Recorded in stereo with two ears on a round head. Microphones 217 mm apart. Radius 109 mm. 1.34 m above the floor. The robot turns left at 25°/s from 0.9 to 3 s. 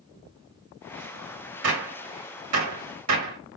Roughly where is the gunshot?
Right.